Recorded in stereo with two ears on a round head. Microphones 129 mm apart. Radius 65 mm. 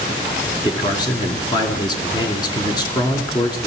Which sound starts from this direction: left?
A man speaking, at 0.6 s.